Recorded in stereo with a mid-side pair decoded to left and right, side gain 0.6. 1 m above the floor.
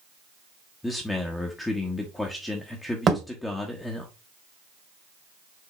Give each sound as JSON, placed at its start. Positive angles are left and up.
{"t": 0.8, "sound": "a man speaking", "azimuth_deg": 15, "distance_m": 1.1}
{"t": 3.1, "sound": "a thud", "azimuth_deg": -35, "distance_m": 1.9}